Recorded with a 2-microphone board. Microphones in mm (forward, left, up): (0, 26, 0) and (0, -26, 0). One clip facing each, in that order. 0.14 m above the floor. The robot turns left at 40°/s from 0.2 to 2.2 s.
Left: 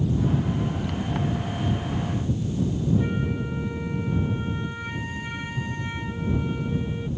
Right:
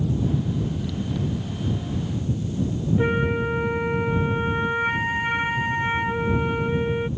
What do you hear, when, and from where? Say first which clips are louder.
3.0 s a flute: right 5 dB; 50° right (ahead or behind)